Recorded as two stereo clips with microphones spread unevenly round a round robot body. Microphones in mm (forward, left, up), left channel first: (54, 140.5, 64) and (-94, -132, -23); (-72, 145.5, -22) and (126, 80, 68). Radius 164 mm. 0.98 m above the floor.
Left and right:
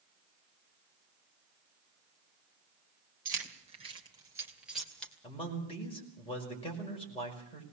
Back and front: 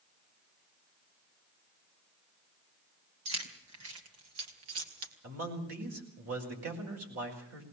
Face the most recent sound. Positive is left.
turn(degrees=-15)